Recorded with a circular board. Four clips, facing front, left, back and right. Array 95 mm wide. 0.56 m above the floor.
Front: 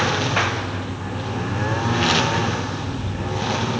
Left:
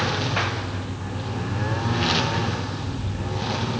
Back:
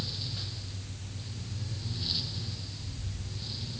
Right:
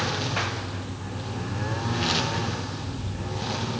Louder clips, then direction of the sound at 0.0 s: Left 3 dB, front 22 dB; 10° left.